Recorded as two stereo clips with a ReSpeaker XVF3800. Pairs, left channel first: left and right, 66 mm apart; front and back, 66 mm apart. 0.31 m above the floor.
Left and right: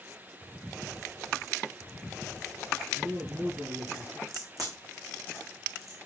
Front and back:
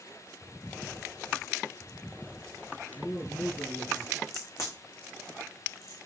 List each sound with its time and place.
2.9 s a man speaking: 35° right, 8.5 m
4.3 s a crack: 50° right, 6.5 m